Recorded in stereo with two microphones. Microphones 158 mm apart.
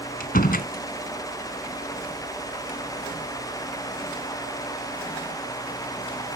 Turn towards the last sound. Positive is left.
turn(degrees=70)  # may be behind; listen again after turning